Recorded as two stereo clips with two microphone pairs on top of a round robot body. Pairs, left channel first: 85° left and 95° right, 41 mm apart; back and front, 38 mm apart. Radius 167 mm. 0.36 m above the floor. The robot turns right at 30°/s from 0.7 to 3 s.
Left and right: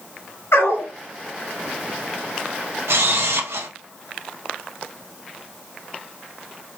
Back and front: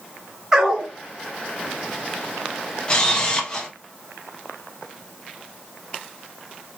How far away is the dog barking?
About 3 m.